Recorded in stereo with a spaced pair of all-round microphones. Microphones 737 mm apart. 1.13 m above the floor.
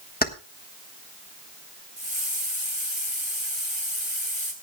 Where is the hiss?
30° left (ahead or behind), 3.5 m.